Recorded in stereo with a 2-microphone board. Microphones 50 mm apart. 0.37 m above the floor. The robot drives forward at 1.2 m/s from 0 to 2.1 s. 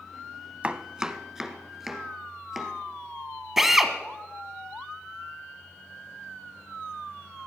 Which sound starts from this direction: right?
Chopping, at 0.6 s.